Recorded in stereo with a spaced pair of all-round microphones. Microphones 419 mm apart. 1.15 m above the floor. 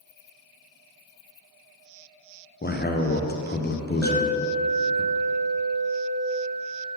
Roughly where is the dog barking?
No dog barking in this recording.